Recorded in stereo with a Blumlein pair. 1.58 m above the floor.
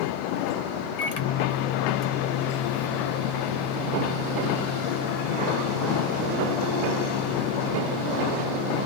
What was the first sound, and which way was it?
A microwave, 50° left.